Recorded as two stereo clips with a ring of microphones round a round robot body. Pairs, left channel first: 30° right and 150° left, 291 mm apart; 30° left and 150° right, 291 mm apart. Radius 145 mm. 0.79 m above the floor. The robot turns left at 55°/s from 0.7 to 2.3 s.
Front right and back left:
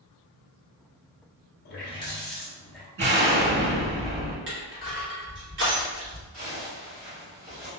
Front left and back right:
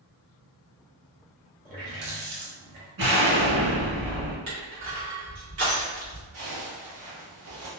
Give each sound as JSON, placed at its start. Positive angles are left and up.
{"t": 1.6, "sound": "a running tap", "azimuth_deg": -85, "distance_m": 0.8}
{"t": 3.0, "sound": "an explosion", "azimuth_deg": -160, "distance_m": 1.5}
{"t": 4.5, "sound": "crushing", "azimuth_deg": -170, "distance_m": 1.2}
{"t": 6.3, "sound": "a zipper", "azimuth_deg": -140, "distance_m": 1.4}